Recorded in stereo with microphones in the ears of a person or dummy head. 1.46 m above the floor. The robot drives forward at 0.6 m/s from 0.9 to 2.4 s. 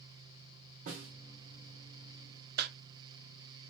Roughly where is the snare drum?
Right.